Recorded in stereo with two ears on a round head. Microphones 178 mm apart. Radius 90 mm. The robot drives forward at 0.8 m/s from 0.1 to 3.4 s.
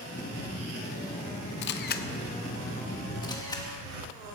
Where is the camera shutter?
60° left (ahead or behind), 0.7 m; by 3.7 s 20° left (ahead or behind), 1.7 m.